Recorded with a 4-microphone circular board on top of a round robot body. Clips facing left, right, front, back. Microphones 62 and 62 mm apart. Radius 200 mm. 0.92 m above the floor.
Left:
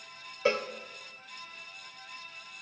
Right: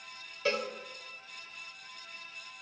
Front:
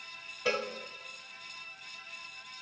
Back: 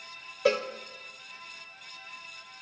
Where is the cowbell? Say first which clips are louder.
Left 3 dB, back 6 dB; 155° left, 0.8 m.